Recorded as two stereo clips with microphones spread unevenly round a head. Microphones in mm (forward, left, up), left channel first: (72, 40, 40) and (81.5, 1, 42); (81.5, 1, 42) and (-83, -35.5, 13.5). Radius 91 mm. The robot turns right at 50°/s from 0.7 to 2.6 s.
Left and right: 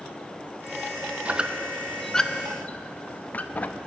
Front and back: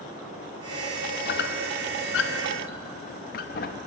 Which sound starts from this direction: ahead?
A squeak, at 1.2 s.